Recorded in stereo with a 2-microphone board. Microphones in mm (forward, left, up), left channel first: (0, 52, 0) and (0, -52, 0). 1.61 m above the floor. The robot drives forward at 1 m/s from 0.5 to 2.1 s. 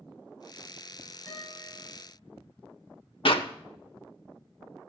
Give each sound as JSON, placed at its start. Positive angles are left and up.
{"t": 1.3, "sound": "a guitar", "side_deg": 30, "distance_m": 8.0}
{"t": 3.2, "sound": "a clap", "side_deg": 60, "distance_m": 0.8}